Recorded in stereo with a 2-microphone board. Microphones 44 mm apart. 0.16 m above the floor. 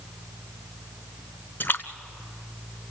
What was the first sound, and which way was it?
A splash, 50° left (ahead or behind).